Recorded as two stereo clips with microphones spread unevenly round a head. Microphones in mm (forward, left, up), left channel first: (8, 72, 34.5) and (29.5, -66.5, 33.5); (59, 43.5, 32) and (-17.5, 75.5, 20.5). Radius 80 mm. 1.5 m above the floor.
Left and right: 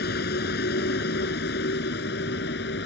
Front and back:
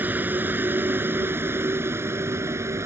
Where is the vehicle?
90° left; by 2.9 s 100° left.